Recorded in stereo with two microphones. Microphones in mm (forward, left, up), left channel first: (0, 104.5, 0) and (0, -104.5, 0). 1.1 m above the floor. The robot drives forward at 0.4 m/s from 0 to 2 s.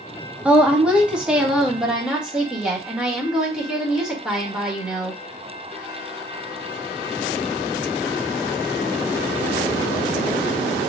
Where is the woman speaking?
5° right (ahead or behind), 0.9 m.